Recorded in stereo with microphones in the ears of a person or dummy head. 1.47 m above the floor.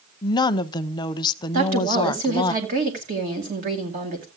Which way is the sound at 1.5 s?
40° right (ahead or behind).